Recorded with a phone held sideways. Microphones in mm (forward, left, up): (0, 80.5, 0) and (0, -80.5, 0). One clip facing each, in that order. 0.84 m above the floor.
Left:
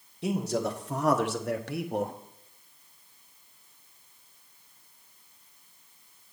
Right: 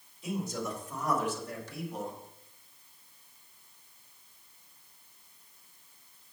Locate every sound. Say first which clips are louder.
0.2 s a man speaking: left 6 dB; 70° left (ahead or behind), 1.5 m; by 2.2 s 60° left (ahead or behind), 0.9 m